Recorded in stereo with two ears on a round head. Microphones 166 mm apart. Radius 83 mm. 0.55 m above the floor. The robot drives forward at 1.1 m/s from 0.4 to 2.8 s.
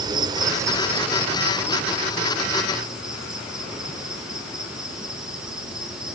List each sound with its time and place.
0.0 s an insect: 25° right (ahead or behind), 0.8 m; by 6.2 s 5° right (ahead or behind), 3.5 m